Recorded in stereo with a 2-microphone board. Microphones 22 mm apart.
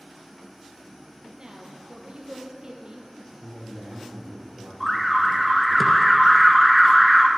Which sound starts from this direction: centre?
An alarm, at 4.8 s.